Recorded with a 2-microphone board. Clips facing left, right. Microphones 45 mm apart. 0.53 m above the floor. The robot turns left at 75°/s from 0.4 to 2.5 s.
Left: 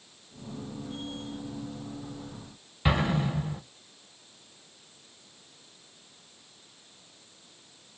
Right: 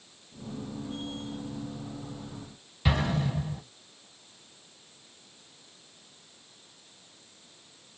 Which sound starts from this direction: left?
An explosion, at 2.9 s.